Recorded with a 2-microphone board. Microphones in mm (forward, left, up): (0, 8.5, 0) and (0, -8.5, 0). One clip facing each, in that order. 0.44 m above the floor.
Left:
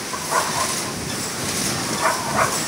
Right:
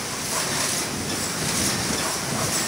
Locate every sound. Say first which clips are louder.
0.1 s a dog barking: left 6 dB; 60° left (ahead or behind); by 2.6 s 65° left (ahead or behind)